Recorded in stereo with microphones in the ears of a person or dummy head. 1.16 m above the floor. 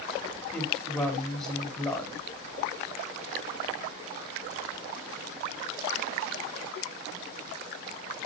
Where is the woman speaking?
Centre (ahead or behind), 2.5 m.